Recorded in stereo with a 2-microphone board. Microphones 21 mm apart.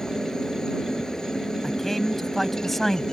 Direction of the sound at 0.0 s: 30° left (ahead or behind).